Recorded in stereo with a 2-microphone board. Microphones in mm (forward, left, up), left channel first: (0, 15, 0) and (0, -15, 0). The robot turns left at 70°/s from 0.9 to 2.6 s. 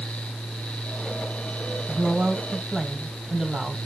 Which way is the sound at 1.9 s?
120° right.